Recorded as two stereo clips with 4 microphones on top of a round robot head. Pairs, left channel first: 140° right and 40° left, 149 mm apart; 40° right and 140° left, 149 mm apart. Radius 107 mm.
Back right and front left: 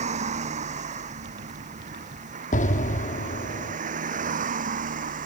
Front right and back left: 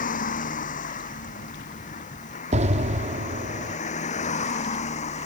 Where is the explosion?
175° right.